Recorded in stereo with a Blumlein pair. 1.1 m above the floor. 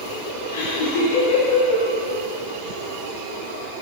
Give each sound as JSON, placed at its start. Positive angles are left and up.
{"t": 0.5, "sound": "laughter", "azimuth_deg": 60, "distance_m": 2.0}